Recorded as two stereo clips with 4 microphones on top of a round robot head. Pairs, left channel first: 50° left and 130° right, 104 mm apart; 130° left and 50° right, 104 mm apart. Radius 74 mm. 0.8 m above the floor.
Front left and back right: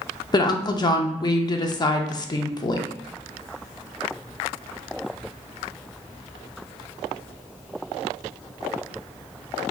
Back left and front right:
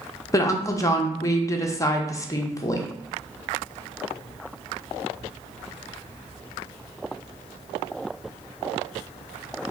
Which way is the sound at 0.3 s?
80° left.